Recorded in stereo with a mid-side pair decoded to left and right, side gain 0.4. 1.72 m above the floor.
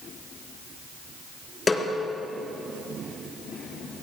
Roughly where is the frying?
No frying in this recording.